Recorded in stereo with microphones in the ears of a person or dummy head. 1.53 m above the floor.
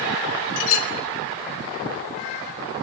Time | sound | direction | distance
0.6 | a clink | 75° left (ahead or behind) | 3.5 m